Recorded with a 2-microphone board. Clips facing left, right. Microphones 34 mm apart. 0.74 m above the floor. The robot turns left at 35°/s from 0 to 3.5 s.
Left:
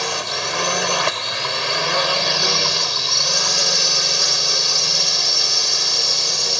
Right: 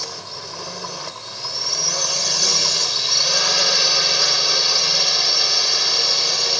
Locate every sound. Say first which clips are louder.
0.0 s a drone: left 10 dB; 110° left; by 6.6 s 15° right